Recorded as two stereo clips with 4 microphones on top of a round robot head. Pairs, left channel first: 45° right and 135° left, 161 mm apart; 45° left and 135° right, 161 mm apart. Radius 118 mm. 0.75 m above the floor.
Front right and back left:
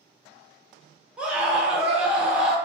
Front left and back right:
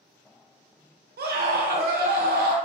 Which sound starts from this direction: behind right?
A scream, at 1.2 s.